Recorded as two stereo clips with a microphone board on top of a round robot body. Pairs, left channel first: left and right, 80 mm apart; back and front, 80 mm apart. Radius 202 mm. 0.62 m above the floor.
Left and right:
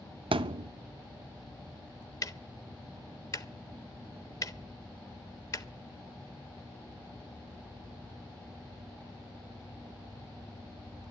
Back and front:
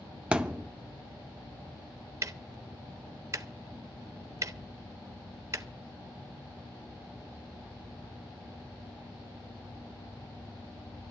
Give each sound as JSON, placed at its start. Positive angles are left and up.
{"t": 0.3, "sound": "a thud", "azimuth_deg": -80, "distance_m": 0.5}
{"t": 2.2, "sound": "ticking", "azimuth_deg": 50, "distance_m": 1.3}